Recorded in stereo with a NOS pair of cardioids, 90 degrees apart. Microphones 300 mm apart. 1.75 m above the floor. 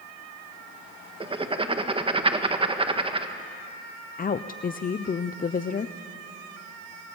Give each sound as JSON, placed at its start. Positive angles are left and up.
{"t": 1.2, "sound": "writing", "azimuth_deg": -20, "distance_m": 1.7}
{"t": 4.2, "sound": "a woman speaking", "azimuth_deg": 30, "distance_m": 0.8}